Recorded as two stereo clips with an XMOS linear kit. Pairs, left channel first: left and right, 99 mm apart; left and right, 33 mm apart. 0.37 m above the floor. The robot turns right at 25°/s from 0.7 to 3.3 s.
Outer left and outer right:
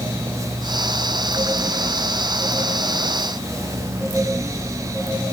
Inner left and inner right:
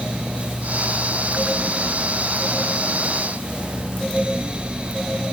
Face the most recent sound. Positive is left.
No sound to turn to.